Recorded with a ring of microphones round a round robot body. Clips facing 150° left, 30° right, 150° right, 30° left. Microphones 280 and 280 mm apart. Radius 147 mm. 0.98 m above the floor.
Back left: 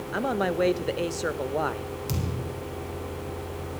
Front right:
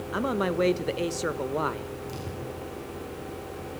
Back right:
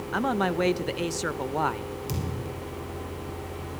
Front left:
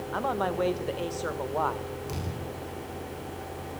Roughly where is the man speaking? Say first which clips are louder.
Even, back right 4 dB; right.